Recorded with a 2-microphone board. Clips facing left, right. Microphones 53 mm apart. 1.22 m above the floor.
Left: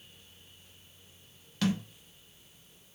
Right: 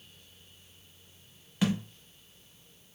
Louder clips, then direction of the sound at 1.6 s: Right 1 dB; 15° right (ahead or behind).